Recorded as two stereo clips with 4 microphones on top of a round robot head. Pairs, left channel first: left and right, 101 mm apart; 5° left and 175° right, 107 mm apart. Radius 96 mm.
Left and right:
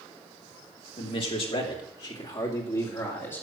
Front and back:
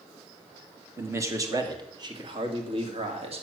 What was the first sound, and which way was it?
A man speaking, 120° left.